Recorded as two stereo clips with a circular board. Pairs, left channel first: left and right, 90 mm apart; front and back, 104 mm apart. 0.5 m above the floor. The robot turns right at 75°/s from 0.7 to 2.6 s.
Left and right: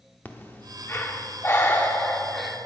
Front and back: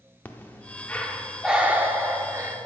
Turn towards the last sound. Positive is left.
turn(degrees=-170)